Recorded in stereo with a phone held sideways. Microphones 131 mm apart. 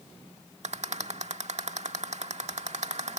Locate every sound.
0.6 s a rattle: 60° right (ahead or behind)